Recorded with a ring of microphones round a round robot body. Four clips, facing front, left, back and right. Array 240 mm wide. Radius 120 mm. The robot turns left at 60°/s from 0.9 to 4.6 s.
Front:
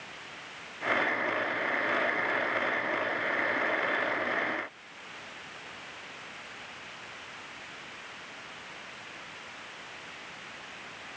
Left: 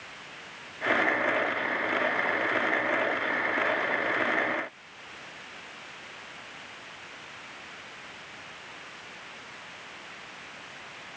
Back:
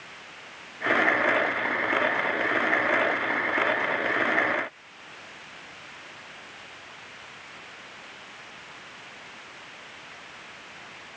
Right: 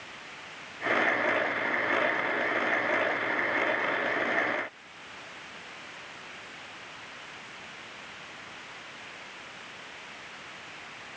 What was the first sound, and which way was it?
Only background noise.